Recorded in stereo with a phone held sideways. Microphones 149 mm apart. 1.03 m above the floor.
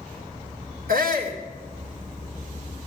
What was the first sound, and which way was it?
A shout, 75° right (ahead or behind).